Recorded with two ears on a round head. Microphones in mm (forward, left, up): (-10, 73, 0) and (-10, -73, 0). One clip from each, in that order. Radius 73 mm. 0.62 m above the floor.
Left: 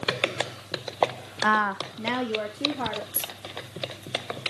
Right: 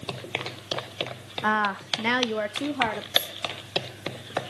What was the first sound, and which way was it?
A woman speaking, 10° left (ahead or behind).